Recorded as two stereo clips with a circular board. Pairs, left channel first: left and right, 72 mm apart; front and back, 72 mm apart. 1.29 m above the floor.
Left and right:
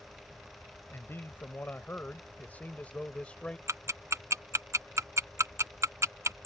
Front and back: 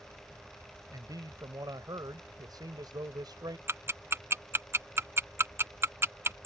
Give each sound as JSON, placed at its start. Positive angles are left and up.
{"t": 0.9, "sound": "a man speaking", "azimuth_deg": 145}
{"t": 3.7, "sound": "ticking", "azimuth_deg": -135}